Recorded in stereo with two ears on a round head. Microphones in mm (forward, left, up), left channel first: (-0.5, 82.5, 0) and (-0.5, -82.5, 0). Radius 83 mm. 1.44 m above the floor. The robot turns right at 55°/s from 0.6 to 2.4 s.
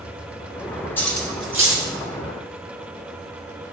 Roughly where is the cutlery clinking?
Centre.